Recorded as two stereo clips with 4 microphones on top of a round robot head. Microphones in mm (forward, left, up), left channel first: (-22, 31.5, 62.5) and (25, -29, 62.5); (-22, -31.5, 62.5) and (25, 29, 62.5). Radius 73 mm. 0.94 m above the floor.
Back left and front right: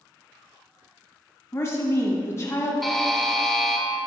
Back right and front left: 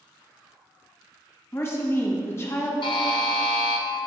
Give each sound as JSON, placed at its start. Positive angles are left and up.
{"t": 1.5, "sound": "a woman speaking", "azimuth_deg": 180, "distance_m": 1.3}
{"t": 2.8, "sound": "a buzzer", "azimuth_deg": -145, "distance_m": 0.8}